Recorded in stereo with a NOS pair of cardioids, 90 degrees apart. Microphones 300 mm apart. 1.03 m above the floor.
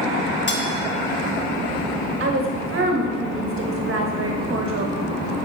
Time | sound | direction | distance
0.5 | cutlery clinking | 40° left | 1.0 m
2.2 | a woman speaking | 45° right | 1.3 m